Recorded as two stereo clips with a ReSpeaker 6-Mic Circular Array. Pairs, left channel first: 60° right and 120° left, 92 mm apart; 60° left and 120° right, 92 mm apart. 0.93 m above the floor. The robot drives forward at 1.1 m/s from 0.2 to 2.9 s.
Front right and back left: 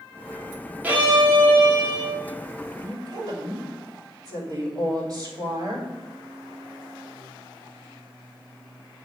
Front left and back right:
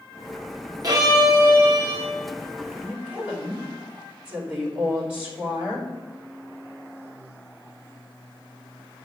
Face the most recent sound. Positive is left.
turn(degrees=165)